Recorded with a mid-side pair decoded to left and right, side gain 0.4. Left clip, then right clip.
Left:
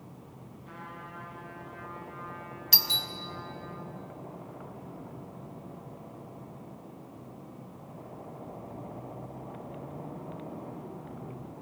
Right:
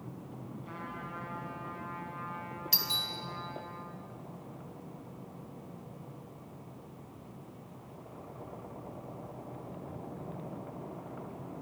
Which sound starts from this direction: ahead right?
A trumpet, at 0.7 s.